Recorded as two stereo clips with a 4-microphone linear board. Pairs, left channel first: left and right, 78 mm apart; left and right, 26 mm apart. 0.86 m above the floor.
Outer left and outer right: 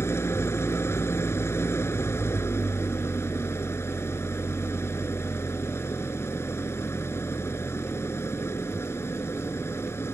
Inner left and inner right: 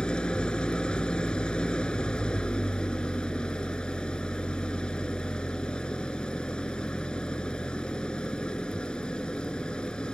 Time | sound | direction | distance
0.0 | an engine running | 35° left (ahead or behind) | ?